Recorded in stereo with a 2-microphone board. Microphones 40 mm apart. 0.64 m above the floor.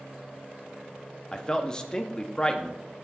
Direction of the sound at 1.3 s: 20° left (ahead or behind).